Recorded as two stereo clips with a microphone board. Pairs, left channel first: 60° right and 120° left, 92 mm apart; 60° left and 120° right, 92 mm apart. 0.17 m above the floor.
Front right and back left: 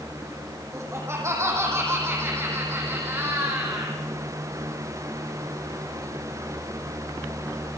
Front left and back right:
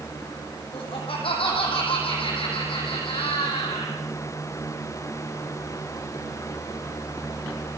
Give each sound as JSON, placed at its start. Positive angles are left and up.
{"t": 0.7, "sound": "laughter", "azimuth_deg": 60, "distance_m": 6.0}